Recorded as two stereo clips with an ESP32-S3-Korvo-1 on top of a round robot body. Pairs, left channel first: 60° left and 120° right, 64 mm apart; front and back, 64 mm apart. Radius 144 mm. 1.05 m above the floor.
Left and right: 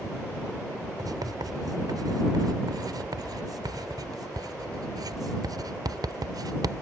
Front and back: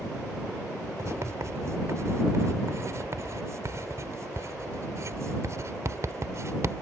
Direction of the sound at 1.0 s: 135° right.